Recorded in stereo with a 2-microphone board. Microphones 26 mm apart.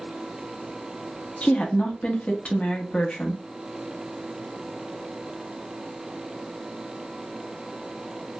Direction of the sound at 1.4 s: 50° left (ahead or behind).